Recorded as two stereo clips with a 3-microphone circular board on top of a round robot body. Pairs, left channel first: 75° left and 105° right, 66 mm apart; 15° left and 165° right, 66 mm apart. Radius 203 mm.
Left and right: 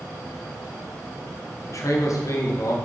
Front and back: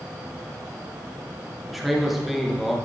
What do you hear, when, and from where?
1.7 s a man speaking: 105° left, 2 m